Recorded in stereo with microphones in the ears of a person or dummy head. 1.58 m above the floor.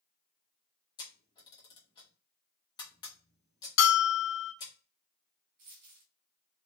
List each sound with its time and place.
1.0 s a camera shutter: 25° left (ahead or behind), 1.0 m
3.8 s a bell: 55° left (ahead or behind), 0.8 m
5.6 s a dropped coin: 55° right (ahead or behind), 1.6 m